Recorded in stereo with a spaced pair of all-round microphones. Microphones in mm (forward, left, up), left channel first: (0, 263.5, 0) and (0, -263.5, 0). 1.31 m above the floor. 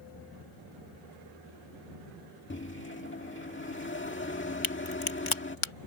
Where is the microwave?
20° left (ahead or behind).